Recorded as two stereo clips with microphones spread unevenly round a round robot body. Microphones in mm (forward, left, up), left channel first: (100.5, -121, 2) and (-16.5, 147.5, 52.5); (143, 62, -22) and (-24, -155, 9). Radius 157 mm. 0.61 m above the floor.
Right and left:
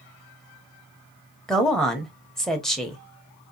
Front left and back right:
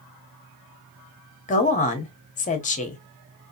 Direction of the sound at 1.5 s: 10° left.